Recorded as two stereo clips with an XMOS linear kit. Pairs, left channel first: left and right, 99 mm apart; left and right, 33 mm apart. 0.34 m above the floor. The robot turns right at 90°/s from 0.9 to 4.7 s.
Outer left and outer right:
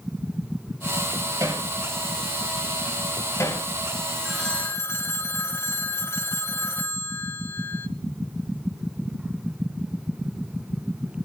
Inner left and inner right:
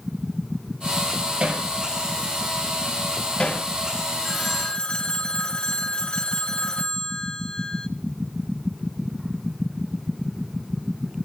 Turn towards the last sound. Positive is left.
turn(degrees=30)